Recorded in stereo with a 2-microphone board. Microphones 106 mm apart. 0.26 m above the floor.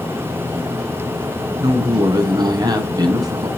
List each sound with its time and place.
1.6 s a woman speaking: 40° right (ahead or behind), 2 m